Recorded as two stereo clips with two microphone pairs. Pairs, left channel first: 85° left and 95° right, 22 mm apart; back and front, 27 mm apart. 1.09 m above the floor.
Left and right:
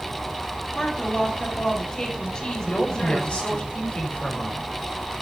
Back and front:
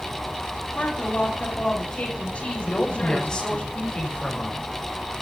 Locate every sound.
0.7 s a woman speaking: 145° left, 6.5 m
2.6 s a woman speaking: 120° left, 6 m